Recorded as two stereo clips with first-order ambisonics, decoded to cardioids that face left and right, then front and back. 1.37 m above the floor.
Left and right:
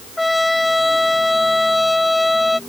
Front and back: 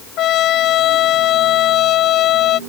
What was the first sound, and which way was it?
A trumpet, 5° left.